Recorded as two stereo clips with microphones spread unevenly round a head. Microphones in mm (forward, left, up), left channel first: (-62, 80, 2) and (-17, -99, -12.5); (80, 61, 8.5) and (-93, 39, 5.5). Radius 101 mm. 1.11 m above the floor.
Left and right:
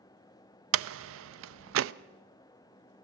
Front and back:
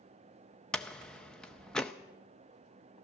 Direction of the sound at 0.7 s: 80° right.